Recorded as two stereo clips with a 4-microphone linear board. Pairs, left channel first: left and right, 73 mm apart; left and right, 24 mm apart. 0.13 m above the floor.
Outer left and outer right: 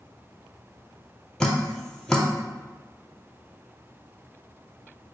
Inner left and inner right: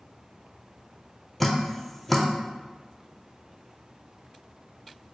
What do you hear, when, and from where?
1.4 s dripping: 5° left (ahead or behind), 0.7 m